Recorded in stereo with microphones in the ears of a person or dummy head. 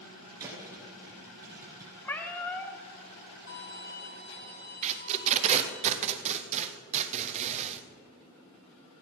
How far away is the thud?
About 2.5 m.